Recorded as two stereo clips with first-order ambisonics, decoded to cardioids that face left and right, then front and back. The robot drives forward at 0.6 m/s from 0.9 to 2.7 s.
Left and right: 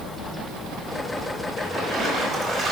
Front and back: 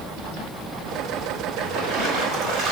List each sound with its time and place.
1.6 s a splash: 155° right, 2.5 m; by 2.7 s 160° right, 3 m